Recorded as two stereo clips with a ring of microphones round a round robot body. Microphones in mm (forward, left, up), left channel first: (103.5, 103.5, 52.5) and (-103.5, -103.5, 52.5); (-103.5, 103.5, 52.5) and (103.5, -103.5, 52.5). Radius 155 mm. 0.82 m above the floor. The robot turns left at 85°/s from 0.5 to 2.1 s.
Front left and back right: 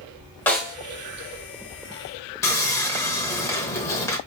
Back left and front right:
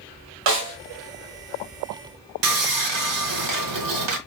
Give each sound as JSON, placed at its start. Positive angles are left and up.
{"t": 0.5, "sound": "a snare drum", "azimuth_deg": -40, "distance_m": 1.2}
{"t": 2.4, "sound": "sawing", "azimuth_deg": -35, "distance_m": 0.8}